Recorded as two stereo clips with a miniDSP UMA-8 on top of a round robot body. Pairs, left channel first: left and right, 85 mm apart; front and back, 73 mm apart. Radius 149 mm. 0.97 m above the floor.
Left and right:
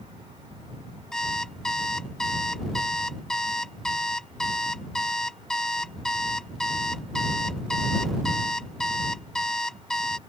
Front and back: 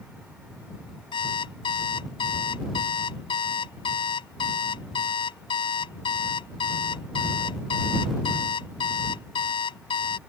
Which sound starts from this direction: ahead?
An alarm clock, at 1.1 s.